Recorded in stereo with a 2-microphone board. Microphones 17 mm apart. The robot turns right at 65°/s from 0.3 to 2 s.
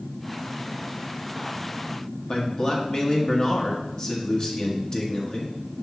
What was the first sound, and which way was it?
A man speaking, 40° left (ahead or behind).